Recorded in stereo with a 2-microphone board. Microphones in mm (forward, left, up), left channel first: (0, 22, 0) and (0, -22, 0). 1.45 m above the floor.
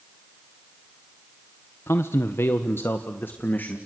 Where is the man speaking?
75° left (ahead or behind), 1.2 m; by 3.8 s 45° left (ahead or behind), 2 m.